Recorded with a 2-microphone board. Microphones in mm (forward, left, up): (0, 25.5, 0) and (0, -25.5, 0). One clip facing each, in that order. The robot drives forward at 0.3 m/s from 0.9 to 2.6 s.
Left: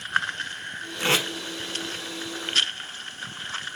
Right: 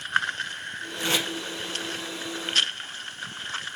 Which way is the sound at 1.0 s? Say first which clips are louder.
Left 3 dB; 80° left.